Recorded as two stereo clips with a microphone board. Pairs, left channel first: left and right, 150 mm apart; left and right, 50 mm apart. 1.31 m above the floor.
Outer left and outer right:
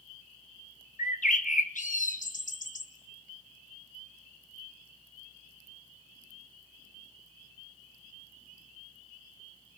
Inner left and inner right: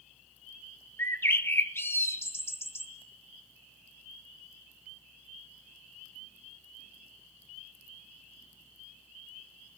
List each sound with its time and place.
1.0 s a bird: 60° left (ahead or behind), 1.2 m